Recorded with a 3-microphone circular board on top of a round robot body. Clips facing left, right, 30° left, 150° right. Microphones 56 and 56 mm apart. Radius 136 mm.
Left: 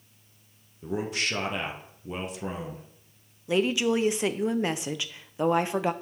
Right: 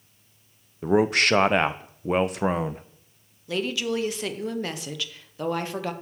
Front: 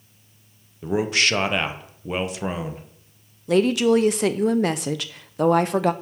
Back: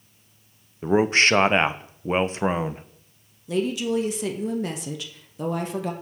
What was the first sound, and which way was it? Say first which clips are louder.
A man speaking: right 10 dB, back 3 dB; 105° right.